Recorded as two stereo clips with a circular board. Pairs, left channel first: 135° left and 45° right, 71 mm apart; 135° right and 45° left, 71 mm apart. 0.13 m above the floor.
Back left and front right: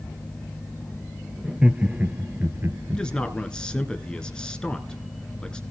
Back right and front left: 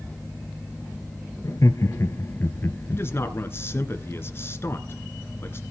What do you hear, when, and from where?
1.4 s laughter: 120° right, 1.7 m; by 3.0 s 80° right, 1.8 m
2.9 s a man speaking: 155° right, 1.8 m